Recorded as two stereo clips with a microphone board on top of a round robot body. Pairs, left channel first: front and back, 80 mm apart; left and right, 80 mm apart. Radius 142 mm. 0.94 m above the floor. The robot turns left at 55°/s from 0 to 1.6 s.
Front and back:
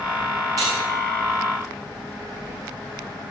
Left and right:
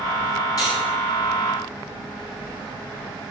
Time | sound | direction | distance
0.6 | cutlery clinking | 135° left | 5.5 m